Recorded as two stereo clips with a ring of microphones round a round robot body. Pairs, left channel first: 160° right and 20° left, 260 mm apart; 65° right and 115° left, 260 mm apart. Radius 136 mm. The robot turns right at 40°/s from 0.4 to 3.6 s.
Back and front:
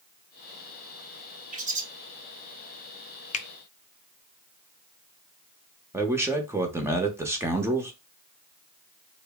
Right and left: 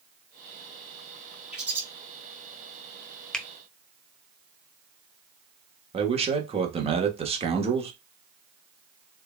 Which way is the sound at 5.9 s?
90° left.